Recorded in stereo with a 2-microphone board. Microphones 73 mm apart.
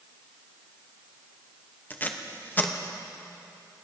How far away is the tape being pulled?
About 0.7 m.